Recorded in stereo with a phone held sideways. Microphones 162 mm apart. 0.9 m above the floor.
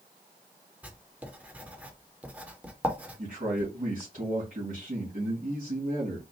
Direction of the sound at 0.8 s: 10° right (ahead or behind).